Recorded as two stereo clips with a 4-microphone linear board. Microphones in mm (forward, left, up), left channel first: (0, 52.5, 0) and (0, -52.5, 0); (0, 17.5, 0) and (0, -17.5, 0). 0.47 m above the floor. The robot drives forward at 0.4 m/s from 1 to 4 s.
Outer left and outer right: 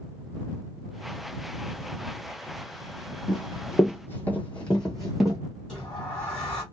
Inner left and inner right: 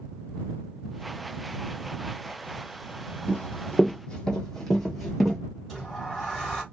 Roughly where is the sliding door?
Centre.